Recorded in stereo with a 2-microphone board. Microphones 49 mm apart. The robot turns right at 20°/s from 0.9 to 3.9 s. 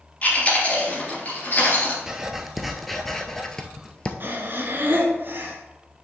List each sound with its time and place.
0.2 s chewing: 30° left (ahead or behind), 3 m; by 2.0 s 50° left (ahead or behind), 3 m
2.1 s writing: 10° right, 0.8 m; by 4.1 s 25° left, 0.8 m
4.2 s breathing: 45° right (ahead or behind), 1.6 m